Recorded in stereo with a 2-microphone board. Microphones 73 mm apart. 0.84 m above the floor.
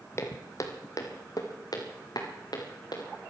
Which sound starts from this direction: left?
Footsteps, at 0.2 s.